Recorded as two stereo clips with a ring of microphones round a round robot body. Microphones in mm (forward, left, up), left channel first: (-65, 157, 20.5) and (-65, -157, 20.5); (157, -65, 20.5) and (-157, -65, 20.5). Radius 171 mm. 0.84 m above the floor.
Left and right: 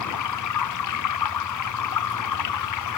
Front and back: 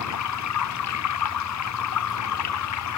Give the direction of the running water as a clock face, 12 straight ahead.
10 o'clock.